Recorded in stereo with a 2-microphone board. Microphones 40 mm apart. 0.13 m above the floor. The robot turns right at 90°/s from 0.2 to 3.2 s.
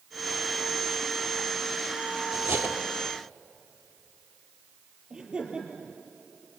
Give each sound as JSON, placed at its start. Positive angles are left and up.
{"t": 2.3, "sound": "cutlery clinking", "azimuth_deg": -75, "distance_m": 1.9}
{"t": 5.1, "sound": "laughter", "side_deg": -25, "distance_m": 4.0}